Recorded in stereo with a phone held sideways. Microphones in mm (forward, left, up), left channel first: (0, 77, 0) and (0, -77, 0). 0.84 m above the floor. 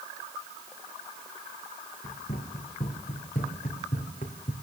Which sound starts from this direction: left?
Running footsteps, at 2.0 s.